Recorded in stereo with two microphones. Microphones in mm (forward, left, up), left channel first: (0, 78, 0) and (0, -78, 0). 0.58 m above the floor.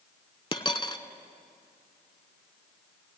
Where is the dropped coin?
35° left (ahead or behind), 0.6 m.